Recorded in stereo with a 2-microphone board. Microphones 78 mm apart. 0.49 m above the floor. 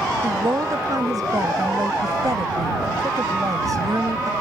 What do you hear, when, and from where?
0.2 s a woman speaking: 55° right (ahead or behind)